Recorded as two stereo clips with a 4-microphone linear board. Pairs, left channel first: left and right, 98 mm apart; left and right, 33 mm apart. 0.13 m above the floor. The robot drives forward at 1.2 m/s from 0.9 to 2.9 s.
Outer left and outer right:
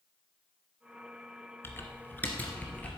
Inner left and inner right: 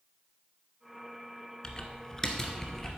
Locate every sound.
1.6 s typing on a keyboard: 25° left (ahead or behind), 1.2 m; by 3.0 s 15° left (ahead or behind), 2 m